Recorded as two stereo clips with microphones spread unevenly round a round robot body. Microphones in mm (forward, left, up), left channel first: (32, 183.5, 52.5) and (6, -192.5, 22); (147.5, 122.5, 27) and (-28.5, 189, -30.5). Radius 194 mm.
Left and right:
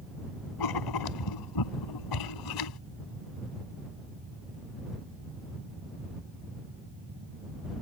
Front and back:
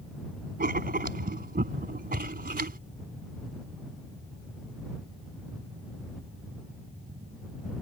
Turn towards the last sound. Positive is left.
turn(degrees=120)